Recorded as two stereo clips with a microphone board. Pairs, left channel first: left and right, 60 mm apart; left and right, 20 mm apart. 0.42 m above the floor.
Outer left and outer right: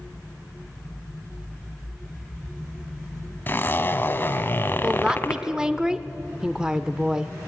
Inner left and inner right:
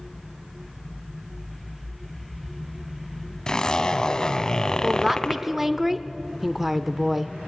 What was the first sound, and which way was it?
A zipper, 40° left (ahead or behind).